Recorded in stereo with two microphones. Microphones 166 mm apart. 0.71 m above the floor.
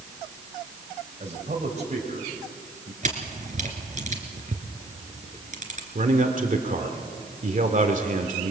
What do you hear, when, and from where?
1.2 s a man speaking: 45° right (ahead or behind), 4 m
3.0 s a camera shutter: 45° right (ahead or behind), 2.5 m
6.0 s a man speaking: 50° right (ahead or behind), 1.9 m